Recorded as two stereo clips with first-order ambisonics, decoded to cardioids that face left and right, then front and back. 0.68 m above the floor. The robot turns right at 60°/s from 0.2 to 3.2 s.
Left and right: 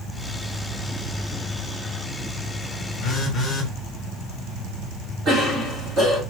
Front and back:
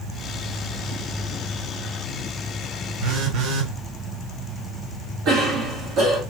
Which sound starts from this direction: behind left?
A phone buzzing, at 3.0 s.